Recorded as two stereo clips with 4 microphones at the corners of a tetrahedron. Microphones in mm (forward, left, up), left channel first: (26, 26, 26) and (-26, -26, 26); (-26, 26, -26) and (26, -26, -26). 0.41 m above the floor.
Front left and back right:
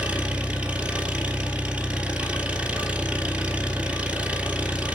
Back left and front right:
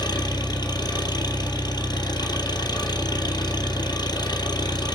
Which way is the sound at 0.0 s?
150° left.